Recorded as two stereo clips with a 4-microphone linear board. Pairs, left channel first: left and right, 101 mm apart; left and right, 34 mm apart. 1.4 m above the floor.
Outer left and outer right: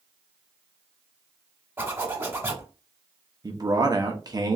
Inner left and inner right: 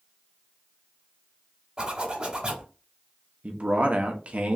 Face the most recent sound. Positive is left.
turn(degrees=-40)  # may be behind; listen again after turning